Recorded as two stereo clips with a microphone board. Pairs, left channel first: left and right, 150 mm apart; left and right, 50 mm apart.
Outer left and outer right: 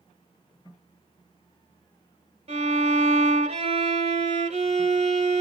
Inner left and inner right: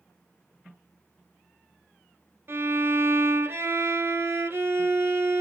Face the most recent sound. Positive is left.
turn(degrees=-45)  # may be behind; listen again after turning